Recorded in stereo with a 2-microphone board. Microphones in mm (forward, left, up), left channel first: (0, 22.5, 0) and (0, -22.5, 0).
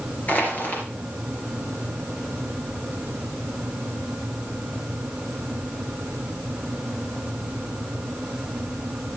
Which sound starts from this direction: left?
Crushing, at 0.3 s.